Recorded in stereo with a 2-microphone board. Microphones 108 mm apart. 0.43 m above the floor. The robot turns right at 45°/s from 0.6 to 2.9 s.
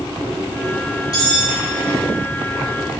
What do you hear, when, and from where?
1.1 s cutlery clinking: 35° left (ahead or behind), 4 m; by 1.6 s 55° left (ahead or behind), 4 m